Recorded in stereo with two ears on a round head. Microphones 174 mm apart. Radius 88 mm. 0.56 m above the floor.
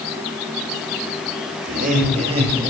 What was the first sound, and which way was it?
Laughter, 50° right (ahead or behind).